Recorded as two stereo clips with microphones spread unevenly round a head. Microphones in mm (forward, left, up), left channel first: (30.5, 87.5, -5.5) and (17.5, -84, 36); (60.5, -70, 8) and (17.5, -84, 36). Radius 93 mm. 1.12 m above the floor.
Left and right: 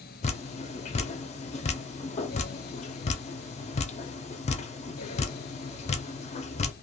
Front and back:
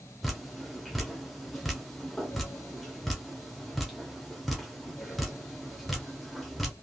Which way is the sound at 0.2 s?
75° left.